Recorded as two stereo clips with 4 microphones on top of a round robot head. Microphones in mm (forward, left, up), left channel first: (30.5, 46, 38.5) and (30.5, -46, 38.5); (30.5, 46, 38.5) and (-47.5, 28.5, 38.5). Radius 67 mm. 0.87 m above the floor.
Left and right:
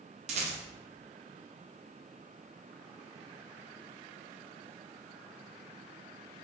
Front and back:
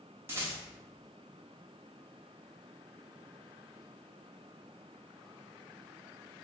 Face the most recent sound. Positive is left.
turn(degrees=-95)